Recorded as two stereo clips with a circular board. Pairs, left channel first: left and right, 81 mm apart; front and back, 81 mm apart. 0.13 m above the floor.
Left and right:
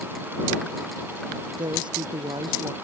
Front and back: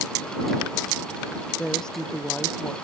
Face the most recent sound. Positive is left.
turn(degrees=-80)